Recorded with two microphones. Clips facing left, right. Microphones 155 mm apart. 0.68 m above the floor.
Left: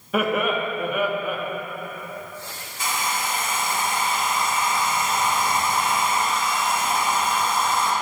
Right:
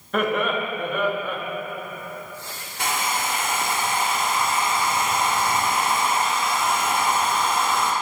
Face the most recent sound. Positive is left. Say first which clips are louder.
# right 1 dB
turn(degrees=-65)  # may be behind; listen again after turning